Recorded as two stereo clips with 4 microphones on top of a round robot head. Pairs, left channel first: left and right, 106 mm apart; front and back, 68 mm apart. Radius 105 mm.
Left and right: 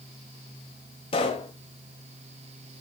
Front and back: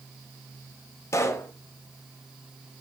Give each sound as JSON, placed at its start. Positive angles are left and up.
{"t": 1.1, "sound": "a pop", "azimuth_deg": 45, "distance_m": 0.9}